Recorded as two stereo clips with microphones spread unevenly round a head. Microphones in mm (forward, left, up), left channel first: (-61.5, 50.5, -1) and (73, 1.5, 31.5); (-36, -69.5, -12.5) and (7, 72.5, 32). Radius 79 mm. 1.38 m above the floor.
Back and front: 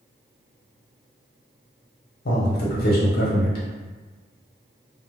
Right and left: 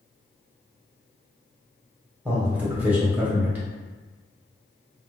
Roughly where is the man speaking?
Behind left.